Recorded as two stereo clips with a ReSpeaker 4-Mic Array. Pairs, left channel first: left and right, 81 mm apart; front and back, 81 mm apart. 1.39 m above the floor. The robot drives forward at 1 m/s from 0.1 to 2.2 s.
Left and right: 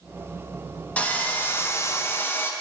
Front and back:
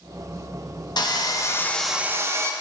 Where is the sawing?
20° left, 1.1 m; by 2.5 s 135° left, 0.7 m.